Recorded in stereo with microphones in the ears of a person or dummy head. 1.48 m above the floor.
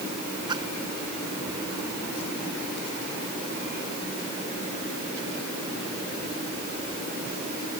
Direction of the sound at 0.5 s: 20° right (ahead or behind).